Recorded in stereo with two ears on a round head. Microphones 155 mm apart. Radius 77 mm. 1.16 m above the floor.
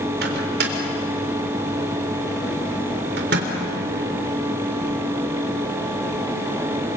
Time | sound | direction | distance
0.2 | a microwave | 65° right (ahead or behind) | 3.5 m